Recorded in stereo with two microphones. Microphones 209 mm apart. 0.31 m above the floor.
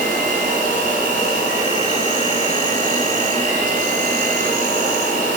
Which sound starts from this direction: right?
An insect, at 0.0 s.